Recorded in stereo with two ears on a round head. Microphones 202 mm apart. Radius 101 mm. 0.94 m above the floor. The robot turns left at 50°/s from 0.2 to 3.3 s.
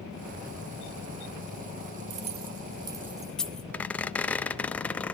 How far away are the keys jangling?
About 1.3 m.